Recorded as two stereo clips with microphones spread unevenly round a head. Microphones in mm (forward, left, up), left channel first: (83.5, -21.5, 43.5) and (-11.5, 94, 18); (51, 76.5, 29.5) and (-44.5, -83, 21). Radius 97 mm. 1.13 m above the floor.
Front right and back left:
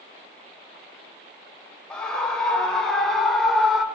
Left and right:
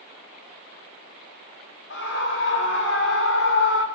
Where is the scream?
35° left, 6 m; by 3.9 s 40° left, 4.5 m.